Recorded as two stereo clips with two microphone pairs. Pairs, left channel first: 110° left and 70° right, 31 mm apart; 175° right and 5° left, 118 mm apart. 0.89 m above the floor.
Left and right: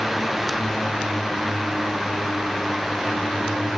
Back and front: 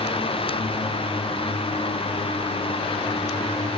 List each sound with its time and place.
Only background noise.